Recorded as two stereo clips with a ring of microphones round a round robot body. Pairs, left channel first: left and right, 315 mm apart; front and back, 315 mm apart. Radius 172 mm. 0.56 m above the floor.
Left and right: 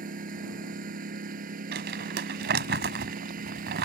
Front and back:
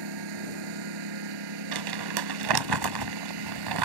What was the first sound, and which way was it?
A lawn mower, 160° right.